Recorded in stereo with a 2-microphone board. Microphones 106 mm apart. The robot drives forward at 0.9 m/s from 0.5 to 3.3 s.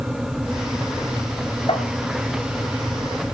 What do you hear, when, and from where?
1.7 s tapping: 75° left (ahead or behind), 4 m